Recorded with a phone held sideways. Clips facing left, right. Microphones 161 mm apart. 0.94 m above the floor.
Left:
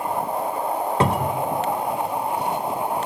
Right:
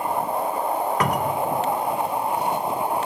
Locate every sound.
1.0 s a cupboard door: 25° left (ahead or behind), 0.6 m